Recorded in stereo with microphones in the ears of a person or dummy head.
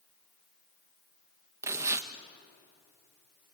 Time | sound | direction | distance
1.6 | tearing paper | 15° right (ahead or behind) | 1.2 m